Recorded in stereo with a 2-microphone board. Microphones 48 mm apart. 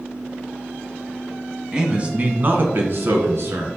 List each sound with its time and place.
1.7 s a man speaking: 15° right (ahead or behind), 1.5 m; by 3.7 s 65° right (ahead or behind), 2.5 m